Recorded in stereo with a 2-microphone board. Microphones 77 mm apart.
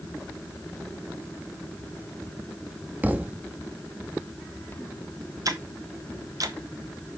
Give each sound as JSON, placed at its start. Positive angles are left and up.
{"t": 3.0, "sound": "a thud", "side_deg": -20, "distance_m": 1.0}
{"t": 5.5, "sound": "ticking", "side_deg": -50, "distance_m": 1.1}